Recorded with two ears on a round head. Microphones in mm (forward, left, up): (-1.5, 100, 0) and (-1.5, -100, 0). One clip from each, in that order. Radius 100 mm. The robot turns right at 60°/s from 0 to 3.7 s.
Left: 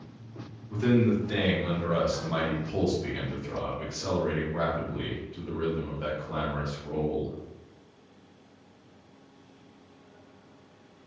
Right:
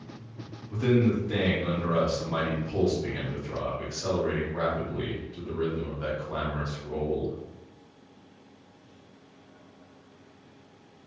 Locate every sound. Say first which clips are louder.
0.7 s a man speaking: even; straight ahead, 1.0 m; by 7.3 s straight behind, 1.0 m